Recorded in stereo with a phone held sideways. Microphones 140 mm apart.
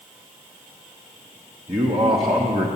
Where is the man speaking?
40° right (ahead or behind), 0.9 m.